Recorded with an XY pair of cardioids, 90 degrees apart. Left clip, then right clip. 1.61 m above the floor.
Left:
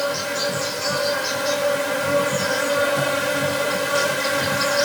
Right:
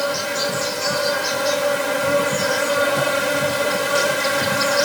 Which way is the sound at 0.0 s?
15° right.